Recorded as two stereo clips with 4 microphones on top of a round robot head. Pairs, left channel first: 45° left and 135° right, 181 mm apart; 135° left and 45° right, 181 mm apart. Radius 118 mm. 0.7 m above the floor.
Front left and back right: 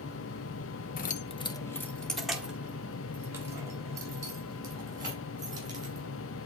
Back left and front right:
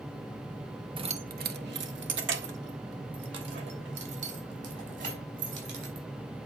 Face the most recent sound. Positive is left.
turn(degrees=-65)